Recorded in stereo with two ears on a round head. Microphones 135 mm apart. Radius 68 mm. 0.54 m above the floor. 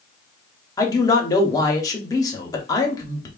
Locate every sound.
0.8 s a man speaking: 25° left (ahead or behind), 0.7 m